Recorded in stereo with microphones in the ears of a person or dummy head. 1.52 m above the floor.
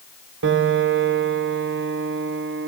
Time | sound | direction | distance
0.4 | a piano | 65° right (ahead or behind) | 0.9 m